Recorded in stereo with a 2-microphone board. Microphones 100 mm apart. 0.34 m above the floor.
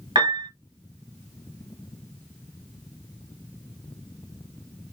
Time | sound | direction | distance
0.1 | a piano | 50° right (ahead or behind) | 1.7 m